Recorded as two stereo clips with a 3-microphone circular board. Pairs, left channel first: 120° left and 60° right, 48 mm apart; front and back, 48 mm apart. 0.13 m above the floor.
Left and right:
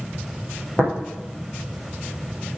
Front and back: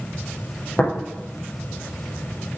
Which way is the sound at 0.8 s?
60° left.